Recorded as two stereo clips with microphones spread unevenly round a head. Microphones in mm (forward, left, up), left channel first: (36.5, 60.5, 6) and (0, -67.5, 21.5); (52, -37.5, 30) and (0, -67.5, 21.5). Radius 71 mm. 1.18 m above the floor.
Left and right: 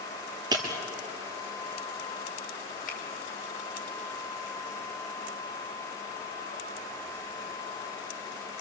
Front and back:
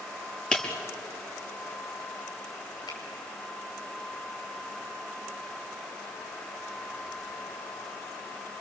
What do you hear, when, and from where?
0.5 s breaking glass: 45° right, 5 m
2.9 s a finger snap: 50° left, 5.5 m